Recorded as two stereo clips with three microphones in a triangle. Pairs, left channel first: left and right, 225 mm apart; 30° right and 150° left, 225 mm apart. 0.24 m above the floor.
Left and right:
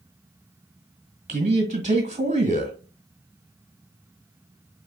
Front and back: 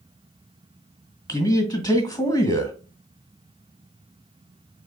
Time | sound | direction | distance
1.3 | a man speaking | 85° right | 1.7 m